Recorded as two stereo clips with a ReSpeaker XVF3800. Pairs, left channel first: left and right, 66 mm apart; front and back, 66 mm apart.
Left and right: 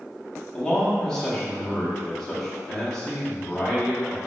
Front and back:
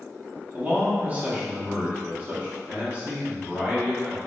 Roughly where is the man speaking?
Behind.